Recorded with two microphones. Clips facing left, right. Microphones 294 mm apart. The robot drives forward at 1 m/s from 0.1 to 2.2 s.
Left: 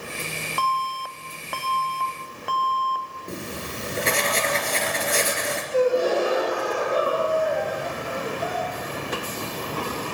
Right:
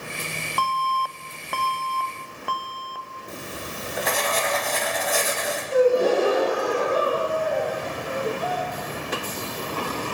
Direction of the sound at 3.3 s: 30° left (ahead or behind).